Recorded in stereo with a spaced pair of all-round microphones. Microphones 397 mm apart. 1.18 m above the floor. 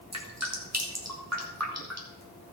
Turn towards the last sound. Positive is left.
turn(degrees=-40)  # may be behind; listen again after turning